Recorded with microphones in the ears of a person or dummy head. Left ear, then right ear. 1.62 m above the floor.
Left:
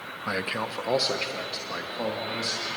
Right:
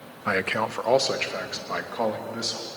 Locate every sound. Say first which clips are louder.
0.3 s a man speaking: right 5 dB; 15° right (ahead or behind), 0.6 m; by 2.7 s 25° right (ahead or behind), 3.5 m